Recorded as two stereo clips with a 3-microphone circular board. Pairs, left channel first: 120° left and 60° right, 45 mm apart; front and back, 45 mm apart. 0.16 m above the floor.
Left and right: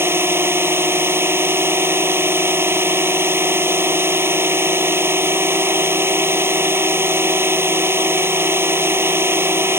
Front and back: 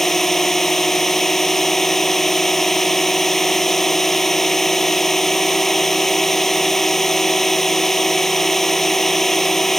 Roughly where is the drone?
Right.